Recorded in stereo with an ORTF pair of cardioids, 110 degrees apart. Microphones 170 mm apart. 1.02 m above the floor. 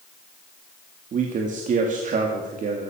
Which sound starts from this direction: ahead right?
A man speaking, at 1.1 s.